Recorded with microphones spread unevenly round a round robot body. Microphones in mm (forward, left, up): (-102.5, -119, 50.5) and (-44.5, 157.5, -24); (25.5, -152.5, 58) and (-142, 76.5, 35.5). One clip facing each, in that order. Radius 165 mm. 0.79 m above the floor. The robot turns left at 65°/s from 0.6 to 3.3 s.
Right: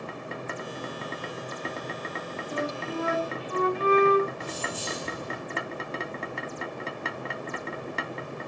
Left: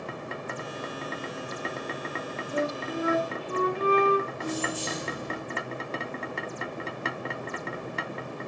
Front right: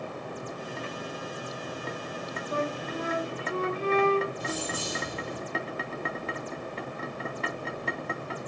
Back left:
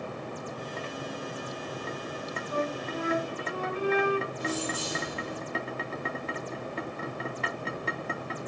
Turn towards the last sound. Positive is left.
turn(degrees=-45)